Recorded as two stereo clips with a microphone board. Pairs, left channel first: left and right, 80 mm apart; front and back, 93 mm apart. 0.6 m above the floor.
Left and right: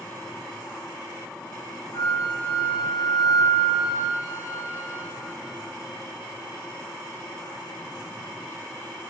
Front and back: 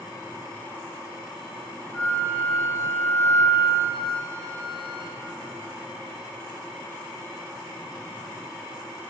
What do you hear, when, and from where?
1.9 s a flute: 70° left, 3 m